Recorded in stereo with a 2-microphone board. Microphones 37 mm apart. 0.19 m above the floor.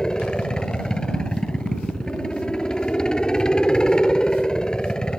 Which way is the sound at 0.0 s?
20° left (ahead or behind).